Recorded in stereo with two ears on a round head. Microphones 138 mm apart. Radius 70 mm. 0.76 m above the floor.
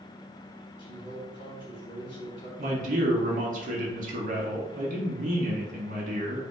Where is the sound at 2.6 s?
50° right (ahead or behind), 1.5 m.